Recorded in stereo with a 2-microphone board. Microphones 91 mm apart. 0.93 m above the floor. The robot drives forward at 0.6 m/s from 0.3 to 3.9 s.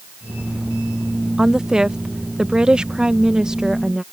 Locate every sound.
1.4 s a woman speaking: 5° right (ahead or behind)